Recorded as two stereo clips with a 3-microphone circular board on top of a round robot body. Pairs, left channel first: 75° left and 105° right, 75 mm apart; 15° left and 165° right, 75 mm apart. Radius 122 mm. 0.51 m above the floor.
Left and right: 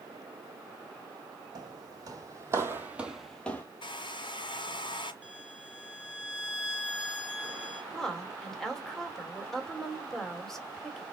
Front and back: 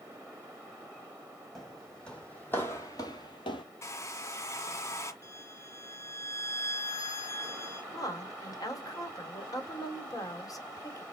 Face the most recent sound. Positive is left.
turn(degrees=-10)